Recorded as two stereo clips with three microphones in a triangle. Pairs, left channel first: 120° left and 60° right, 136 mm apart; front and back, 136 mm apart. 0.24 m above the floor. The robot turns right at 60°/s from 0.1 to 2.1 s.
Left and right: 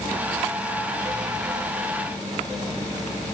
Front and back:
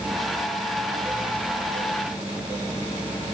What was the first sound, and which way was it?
Only background noise.